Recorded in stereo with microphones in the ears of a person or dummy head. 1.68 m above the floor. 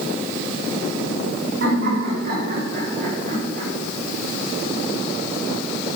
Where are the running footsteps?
No running footsteps in this recording.